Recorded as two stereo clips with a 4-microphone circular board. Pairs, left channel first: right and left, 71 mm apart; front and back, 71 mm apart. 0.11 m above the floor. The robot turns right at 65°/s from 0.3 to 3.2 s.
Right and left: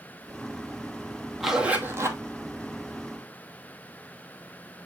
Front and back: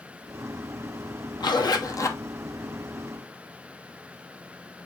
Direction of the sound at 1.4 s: Straight ahead.